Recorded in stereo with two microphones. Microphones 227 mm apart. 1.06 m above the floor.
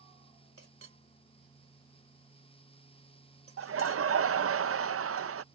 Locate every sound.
0.6 s a clink: 70° right (ahead or behind)
3.6 s laughter: 75° right (ahead or behind)